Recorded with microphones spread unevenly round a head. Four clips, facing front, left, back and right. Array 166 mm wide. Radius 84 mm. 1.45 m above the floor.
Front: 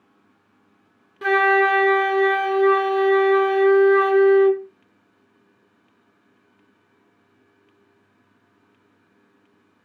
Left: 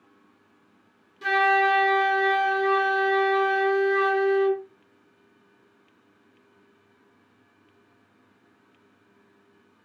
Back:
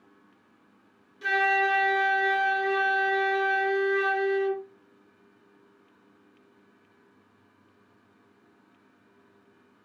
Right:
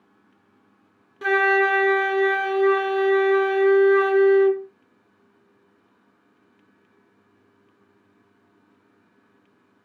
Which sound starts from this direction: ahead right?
A flute, at 1.2 s.